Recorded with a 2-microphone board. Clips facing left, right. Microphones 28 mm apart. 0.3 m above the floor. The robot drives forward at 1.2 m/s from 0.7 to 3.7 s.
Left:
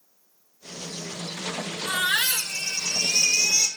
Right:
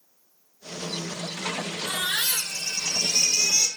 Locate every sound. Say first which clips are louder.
1.9 s a baby crying: left 4 dB; 45° left (ahead or behind), 2 m; by 3.7 s 20° left (ahead or behind), 4 m